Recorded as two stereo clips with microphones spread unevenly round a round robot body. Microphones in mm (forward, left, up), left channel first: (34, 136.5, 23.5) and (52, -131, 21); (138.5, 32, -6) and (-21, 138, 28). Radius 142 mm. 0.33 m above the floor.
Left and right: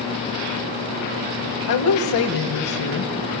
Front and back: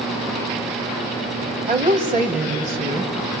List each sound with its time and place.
1.7 s a woman speaking: 90° left, 1.5 m